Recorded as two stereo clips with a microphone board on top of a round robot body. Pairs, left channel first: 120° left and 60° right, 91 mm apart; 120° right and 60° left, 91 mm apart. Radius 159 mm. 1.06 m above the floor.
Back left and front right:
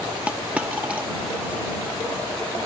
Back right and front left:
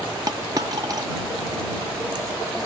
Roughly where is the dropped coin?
Ahead.